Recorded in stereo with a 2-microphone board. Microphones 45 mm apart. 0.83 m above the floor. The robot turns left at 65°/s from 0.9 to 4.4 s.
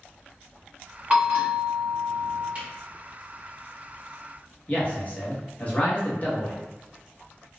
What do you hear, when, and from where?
1.1 s a bell: 30° right, 1.2 m; by 2.5 s 120° right, 1.2 m
2.5 s a camera shutter: 40° right (ahead or behind), 1.5 m; by 2.6 s 30° right (ahead or behind), 1.5 m
4.7 s a man speaking: 35° left (ahead or behind), 1.0 m